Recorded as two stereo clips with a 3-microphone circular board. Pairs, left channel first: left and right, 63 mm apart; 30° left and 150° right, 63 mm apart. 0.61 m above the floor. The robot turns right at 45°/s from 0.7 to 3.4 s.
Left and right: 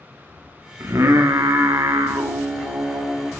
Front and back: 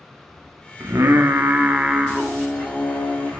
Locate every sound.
0.8 s singing: 125° right, 0.6 m; by 3.3 s 10° right, 0.6 m